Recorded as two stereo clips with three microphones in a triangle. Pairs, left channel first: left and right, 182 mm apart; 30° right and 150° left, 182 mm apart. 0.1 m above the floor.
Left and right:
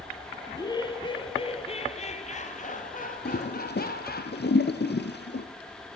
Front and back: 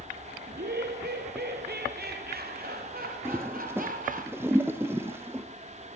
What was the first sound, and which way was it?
Laughter, 160° left.